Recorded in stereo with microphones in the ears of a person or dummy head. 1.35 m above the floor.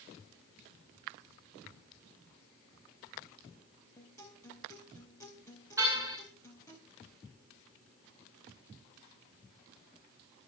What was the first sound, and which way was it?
A guitar, 15° left (ahead or behind).